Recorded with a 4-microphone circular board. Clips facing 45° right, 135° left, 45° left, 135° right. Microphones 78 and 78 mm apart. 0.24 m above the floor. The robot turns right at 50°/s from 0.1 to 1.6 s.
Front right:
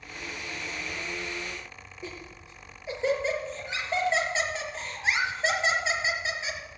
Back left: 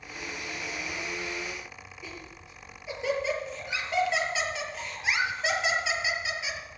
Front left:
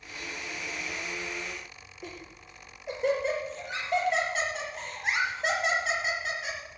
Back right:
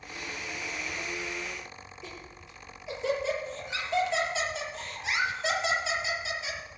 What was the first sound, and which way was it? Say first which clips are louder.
Laughter: front right 4 dB, front left 6 dB; 15° left.